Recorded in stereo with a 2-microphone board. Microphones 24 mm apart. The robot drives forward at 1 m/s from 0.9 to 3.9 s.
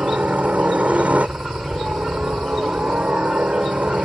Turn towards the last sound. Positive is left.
turn(degrees=-70)  # may be behind; listen again after turning